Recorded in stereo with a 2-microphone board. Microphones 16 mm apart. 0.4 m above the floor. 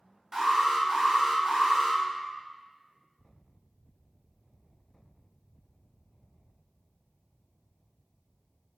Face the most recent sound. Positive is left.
turn(degrees=-35)  # may be behind; listen again after turning